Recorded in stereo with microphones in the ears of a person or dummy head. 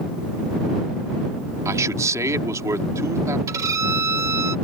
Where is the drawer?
No drawer in this recording.